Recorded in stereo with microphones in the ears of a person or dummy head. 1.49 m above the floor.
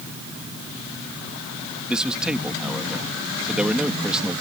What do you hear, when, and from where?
1.9 s a man speaking: centre (ahead or behind)